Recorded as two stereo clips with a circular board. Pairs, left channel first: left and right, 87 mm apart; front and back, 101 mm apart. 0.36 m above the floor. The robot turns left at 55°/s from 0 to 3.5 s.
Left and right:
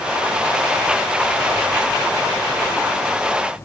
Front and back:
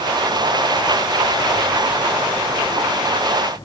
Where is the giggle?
I don't hear a giggle.